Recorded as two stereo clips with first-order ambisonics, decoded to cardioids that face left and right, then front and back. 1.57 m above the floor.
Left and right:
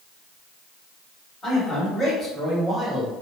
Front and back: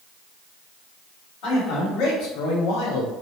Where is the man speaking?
10° left, 1.5 m; by 3.1 s 5° right, 0.6 m.